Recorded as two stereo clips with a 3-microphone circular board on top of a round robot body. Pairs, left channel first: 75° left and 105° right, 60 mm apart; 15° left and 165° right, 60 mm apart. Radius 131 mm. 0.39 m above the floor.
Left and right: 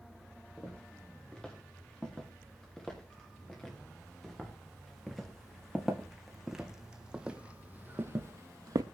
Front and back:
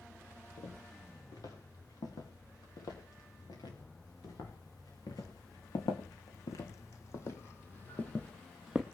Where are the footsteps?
Straight ahead, 5 m; by 8.8 s 85° right, 0.8 m.